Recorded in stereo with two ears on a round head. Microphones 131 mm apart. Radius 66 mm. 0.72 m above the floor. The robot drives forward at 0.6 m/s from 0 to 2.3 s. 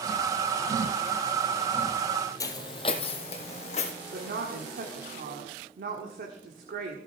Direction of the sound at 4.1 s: 70° right (ahead or behind).